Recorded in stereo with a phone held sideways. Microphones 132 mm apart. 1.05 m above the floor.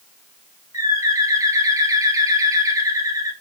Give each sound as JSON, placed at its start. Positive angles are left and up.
{"t": 0.7, "sound": "a bird", "side_deg": -25, "distance_m": 0.7}